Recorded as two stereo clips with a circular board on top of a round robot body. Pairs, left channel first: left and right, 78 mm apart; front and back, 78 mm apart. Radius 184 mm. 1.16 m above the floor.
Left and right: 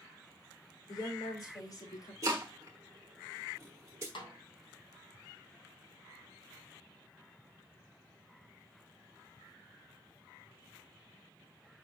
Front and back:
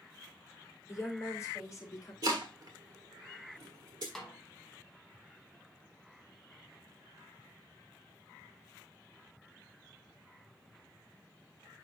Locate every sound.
0.9 s a woman speaking: 60° left, 3.5 m; by 2.1 s 50° left, 4 m
2.2 s chopping: 145° right, 1.1 m
4.2 s a snare drum: 85° left, 2.5 m